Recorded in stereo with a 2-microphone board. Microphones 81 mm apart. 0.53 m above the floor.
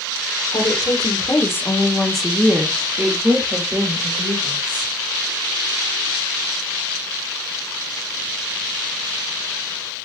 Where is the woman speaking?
55° left (ahead or behind), 1.5 m; by 4.9 s 65° right (ahead or behind), 2.5 m.